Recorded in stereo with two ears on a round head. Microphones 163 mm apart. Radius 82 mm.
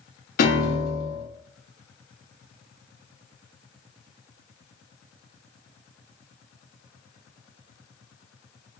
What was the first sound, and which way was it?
A piano, 50° left (ahead or behind).